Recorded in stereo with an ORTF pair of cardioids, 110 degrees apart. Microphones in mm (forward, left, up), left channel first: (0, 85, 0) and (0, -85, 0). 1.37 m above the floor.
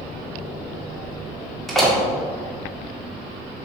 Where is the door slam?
Straight ahead, 2 m.